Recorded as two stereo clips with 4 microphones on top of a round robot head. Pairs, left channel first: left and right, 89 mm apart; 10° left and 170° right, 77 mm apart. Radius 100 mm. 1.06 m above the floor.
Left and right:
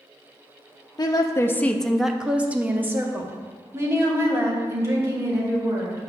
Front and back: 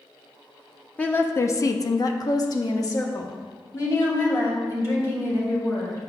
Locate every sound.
1.0 s a woman speaking: 80° left, 0.6 m; by 6.0 s 40° right, 2.5 m